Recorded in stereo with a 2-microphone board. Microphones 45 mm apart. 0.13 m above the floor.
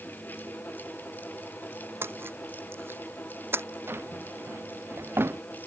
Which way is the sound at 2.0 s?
60° right (ahead or behind).